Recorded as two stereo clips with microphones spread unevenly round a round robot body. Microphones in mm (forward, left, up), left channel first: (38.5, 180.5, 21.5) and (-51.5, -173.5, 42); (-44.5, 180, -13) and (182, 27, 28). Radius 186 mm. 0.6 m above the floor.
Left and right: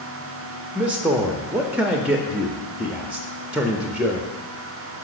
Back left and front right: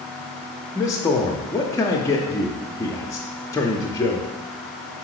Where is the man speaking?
165° left, 0.6 m.